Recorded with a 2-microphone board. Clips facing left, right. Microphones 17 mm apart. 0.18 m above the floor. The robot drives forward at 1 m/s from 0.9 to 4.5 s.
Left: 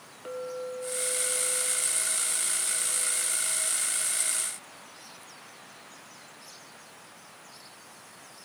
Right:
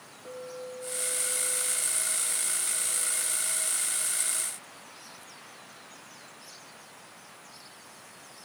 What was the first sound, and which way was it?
A clink, 50° left (ahead or behind).